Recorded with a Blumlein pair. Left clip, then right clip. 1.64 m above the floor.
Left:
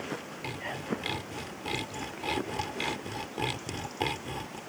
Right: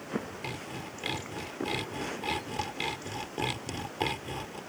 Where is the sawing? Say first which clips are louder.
Left 4 dB; straight ahead.